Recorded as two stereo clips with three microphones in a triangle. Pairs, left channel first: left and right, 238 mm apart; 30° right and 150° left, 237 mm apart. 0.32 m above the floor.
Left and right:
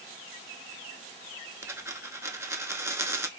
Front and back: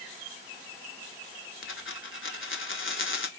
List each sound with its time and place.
1.6 s a dropped coin: 10° right, 0.5 m